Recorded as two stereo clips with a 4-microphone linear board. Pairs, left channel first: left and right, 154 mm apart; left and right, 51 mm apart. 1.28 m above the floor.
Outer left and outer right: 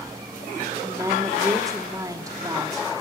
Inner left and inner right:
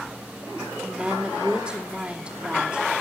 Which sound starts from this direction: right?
A woman speaking, at 0.8 s.